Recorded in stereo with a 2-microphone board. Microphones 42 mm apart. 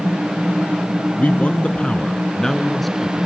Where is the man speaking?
40° left (ahead or behind), 1.3 m; by 3.3 s 5° right (ahead or behind), 1.3 m.